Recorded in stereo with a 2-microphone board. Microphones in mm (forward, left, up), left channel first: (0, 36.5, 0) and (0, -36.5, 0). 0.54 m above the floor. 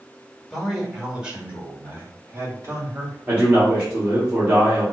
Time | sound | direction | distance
0.5 | a man speaking | centre (ahead or behind) | 1.8 m
3.3 | a man speaking | 25° right (ahead or behind) | 1.6 m